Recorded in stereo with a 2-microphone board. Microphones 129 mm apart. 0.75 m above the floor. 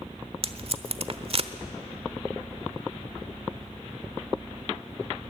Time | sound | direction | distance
0.4 | tape being pulled | 50° right (ahead or behind) | 1.0 m